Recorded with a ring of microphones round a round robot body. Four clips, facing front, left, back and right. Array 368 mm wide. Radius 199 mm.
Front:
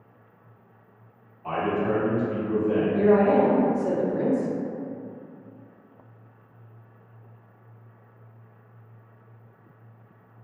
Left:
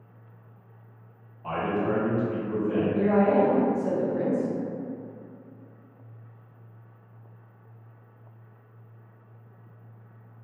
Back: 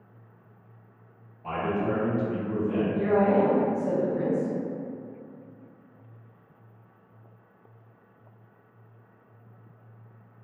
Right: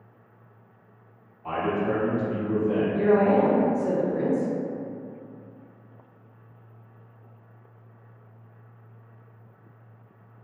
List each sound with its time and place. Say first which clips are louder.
1.4 s a man speaking: right 1 dB, front 2 dB; 120° left, 1.3 m; by 2.8 s 60° right, 1.1 m
2.9 s a woman speaking: right 2 dB, front 4 dB; 25° right, 0.9 m